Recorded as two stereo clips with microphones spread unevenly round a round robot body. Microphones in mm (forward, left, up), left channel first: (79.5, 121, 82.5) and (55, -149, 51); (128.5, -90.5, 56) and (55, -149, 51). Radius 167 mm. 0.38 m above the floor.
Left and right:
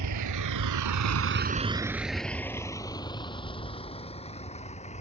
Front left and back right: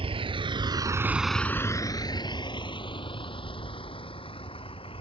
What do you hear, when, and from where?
0.0 s a vehicle: 125° right; by 5.0 s 20° left